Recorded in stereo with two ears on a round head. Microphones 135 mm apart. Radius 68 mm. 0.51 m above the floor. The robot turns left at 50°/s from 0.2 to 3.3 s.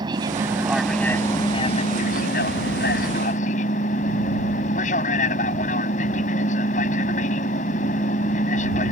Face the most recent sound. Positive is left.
turn(degrees=55)